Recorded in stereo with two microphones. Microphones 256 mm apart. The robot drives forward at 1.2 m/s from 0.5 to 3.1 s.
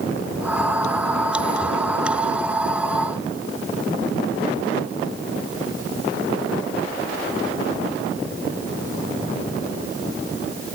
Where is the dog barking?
I don't hear a dog barking.